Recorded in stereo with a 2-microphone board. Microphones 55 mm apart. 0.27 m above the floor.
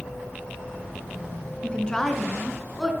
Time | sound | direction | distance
1.6 | a woman speaking | 20° left (ahead or behind) | 2.5 m